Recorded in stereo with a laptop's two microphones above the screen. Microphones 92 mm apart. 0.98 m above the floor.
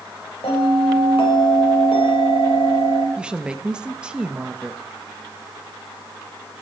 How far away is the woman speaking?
About 1.2 m.